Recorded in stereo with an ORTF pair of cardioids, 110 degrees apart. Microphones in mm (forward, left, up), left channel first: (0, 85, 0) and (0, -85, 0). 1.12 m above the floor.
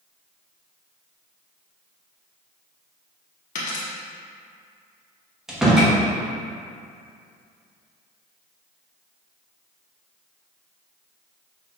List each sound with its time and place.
3.5 s a dropped coin: 50° left, 1.1 m
5.5 s a door slam: straight ahead, 1.1 m